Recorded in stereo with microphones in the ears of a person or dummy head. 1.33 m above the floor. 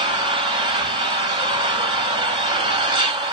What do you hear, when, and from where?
0.0 s an engine running: 30° right (ahead or behind), 1.6 m